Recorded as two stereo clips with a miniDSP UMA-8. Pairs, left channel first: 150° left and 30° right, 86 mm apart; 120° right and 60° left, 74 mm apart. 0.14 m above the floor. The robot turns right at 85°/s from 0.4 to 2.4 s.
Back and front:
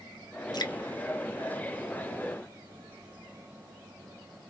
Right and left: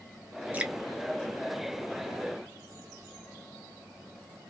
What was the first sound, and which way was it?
Dripping, 125° left.